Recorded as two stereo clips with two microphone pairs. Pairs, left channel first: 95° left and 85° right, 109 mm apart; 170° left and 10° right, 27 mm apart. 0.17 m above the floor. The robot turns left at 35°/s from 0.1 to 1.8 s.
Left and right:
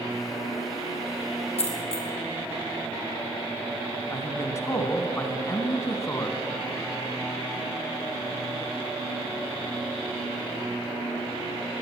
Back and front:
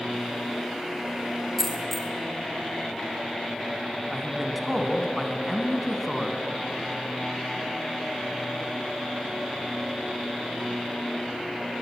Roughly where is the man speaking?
Left.